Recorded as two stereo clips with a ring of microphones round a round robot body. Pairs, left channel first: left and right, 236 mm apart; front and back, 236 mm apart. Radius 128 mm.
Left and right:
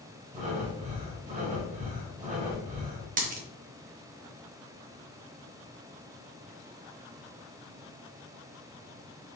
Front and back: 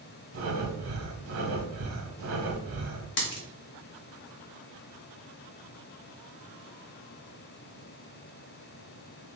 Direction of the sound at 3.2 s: 40° right.